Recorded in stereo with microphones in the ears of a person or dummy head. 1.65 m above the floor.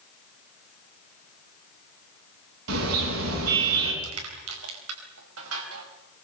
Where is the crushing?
80° right, 5 m.